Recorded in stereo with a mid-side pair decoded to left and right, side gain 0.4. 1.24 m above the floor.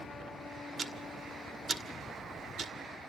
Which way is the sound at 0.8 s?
35° right.